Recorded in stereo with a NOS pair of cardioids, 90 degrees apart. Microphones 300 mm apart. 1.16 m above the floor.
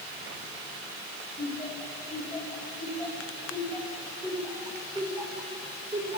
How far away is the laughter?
About 9 m.